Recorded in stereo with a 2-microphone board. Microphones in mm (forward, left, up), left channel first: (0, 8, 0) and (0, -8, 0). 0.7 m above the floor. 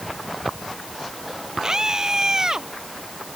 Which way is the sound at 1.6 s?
45° right (ahead or behind).